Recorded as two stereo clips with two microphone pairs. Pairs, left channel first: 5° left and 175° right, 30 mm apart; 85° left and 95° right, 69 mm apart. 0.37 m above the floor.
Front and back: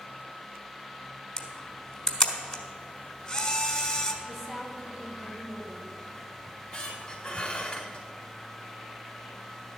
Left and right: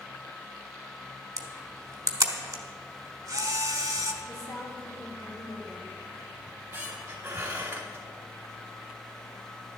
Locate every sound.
1.4 s a camera shutter: 55° right, 1.2 m
4.2 s a woman speaking: 95° left, 2.5 m
6.5 s a squeak: 40° right, 1.9 m